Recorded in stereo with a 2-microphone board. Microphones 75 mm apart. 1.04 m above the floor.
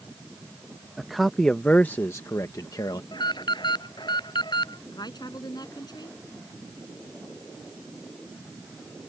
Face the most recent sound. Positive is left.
turn(degrees=65)  # may be behind; listen again after turning